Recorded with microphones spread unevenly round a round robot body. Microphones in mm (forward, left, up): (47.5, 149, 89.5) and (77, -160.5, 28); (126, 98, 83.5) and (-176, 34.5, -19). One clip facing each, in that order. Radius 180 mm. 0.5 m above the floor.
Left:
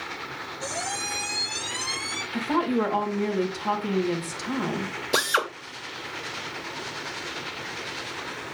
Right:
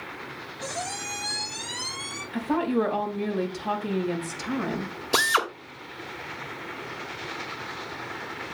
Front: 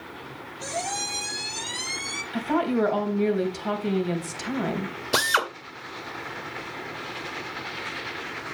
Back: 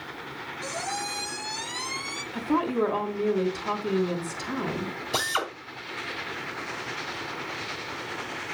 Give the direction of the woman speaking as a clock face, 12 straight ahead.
11 o'clock.